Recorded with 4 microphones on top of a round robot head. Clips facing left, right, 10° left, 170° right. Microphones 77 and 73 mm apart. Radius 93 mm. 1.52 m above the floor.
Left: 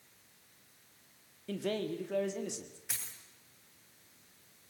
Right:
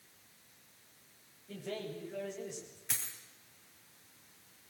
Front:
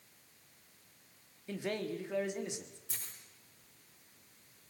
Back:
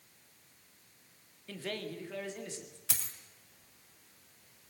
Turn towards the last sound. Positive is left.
turn(degrees=175)